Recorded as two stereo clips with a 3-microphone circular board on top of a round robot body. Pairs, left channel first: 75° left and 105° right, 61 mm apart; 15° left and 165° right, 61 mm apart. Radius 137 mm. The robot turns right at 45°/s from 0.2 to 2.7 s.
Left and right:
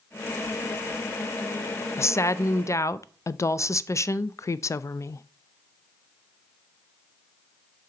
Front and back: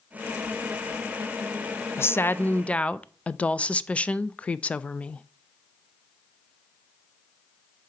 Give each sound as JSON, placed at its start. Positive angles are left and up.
{"t": 2.0, "sound": "a woman speaking", "azimuth_deg": 50, "distance_m": 0.5}